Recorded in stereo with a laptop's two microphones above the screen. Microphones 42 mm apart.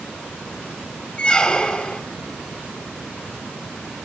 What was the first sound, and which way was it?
A squeak, 25° left (ahead or behind).